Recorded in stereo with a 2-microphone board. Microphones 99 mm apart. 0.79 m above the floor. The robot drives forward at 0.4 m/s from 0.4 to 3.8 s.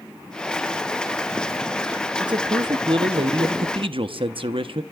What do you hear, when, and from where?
2.2 s a man speaking: 50° right (ahead or behind), 1.0 m; by 4.8 s 65° right (ahead or behind), 0.9 m